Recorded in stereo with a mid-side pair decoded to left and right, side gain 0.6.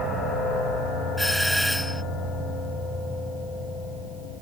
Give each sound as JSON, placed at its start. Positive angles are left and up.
{"t": 1.2, "sound": "a doorbell", "azimuth_deg": 5}